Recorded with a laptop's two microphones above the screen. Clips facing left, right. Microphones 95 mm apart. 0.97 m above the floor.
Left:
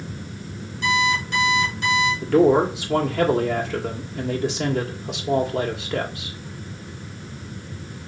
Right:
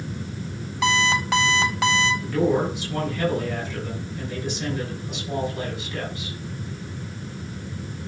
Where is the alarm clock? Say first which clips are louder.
Even; 80° right, 3 m.